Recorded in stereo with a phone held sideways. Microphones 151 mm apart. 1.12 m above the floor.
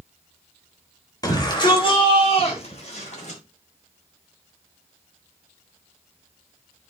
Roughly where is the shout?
Left.